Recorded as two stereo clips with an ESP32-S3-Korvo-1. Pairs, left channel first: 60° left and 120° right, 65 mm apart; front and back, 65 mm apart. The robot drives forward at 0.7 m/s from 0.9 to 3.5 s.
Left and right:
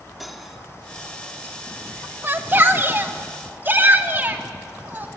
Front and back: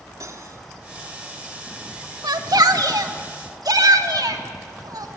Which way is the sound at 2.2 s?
175° right.